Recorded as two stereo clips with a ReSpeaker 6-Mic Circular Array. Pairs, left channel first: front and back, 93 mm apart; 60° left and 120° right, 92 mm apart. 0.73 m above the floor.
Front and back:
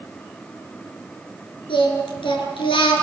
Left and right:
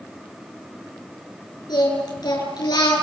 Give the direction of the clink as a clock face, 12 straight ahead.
I don't hear a clink.